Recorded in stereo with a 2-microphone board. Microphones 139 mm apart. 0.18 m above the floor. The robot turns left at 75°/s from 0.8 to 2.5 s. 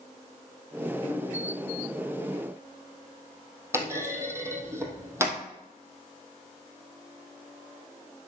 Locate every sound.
3.7 s a clunk: 20° right (ahead or behind), 2 m